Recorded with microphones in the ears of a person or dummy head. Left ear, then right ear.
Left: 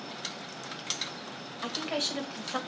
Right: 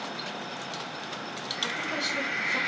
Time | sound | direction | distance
1.6 | a woman speaking | 40° left (ahead or behind) | 1.7 m